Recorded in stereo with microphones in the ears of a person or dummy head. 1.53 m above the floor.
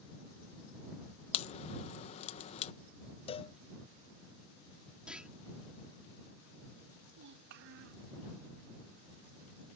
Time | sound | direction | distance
1.3 | a crack | 40° left (ahead or behind) | ?
3.3 | a cowbell | 25° left (ahead or behind) | ?
5.1 | a clunk | 5° right (ahead or behind) | ?
7.1 | a child speaking | 70° right (ahead or behind) | ?